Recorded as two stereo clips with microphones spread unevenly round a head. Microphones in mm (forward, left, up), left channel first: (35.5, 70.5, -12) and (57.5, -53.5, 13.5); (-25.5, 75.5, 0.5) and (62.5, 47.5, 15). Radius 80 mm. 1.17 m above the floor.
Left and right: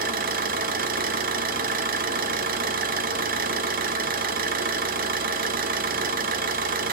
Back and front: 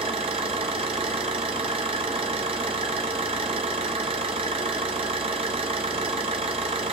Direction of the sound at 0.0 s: 75° right.